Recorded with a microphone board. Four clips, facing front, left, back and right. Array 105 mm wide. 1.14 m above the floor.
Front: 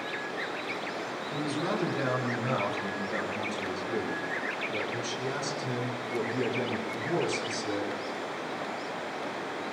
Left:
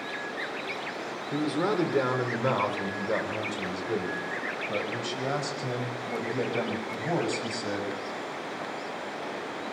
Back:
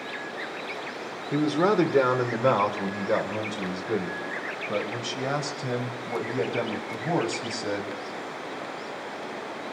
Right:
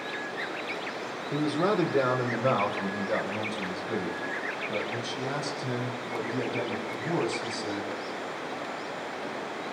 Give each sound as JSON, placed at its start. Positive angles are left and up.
{"t": 1.3, "sound": "a man speaking", "azimuth_deg": 180, "distance_m": 4.0}